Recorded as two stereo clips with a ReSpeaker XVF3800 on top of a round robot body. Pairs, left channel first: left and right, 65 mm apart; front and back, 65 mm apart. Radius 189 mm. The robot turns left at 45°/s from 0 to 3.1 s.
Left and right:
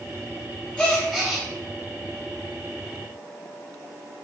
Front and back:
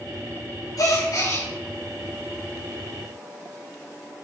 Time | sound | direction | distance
0.8 | a gasp | 20° left | 3.5 m